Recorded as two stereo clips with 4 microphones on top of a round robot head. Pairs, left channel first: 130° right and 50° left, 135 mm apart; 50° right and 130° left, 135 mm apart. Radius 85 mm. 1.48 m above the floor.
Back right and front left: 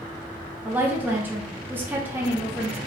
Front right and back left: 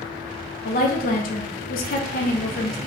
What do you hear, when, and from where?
0.7 s a woman speaking: 25° right, 0.5 m